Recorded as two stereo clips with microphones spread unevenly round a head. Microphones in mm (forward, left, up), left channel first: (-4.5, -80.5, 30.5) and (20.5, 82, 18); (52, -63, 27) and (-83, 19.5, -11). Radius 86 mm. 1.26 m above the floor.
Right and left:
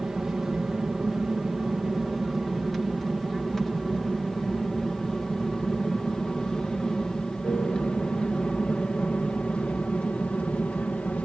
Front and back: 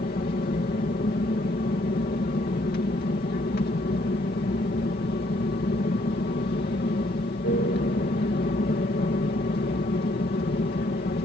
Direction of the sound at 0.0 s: 5° right.